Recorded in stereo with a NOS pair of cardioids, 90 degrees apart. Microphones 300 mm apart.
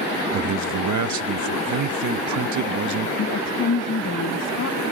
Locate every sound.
0.3 s a man speaking: 70° right
3.2 s a woman speaking: 55° left